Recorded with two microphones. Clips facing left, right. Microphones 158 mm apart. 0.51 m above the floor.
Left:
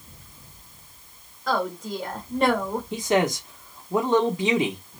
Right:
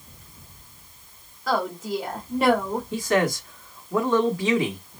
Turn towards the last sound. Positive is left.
turn(degrees=20)  # may be behind; listen again after turning